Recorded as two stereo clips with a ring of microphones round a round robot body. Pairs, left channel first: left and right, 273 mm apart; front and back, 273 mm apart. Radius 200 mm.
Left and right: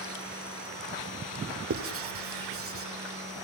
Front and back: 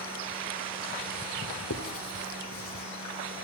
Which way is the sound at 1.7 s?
50° right.